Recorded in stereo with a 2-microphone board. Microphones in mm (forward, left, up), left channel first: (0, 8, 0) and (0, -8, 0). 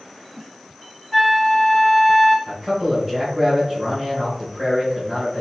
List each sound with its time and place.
1.1 s a flute: 10° left (ahead or behind), 1.2 m
2.5 s a man speaking: 35° right (ahead or behind), 1.6 m